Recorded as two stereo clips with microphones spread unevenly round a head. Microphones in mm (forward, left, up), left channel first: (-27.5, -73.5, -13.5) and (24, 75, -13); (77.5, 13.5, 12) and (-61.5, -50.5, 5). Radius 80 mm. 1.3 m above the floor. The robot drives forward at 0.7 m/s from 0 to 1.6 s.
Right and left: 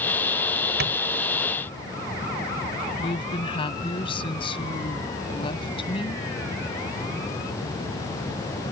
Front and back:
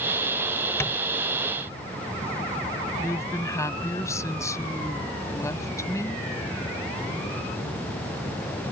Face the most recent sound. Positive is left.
turn(degrees=-50)